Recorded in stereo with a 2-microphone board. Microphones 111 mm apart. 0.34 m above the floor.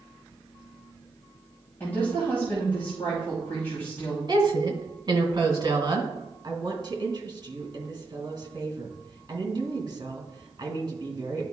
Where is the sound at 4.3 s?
40° right (ahead or behind), 2 m.